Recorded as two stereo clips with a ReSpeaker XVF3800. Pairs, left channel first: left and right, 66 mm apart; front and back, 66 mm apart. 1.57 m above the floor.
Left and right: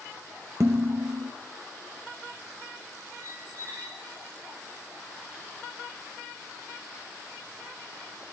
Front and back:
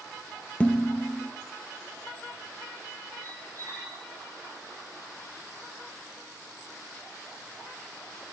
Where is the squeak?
55° right, 8.5 m.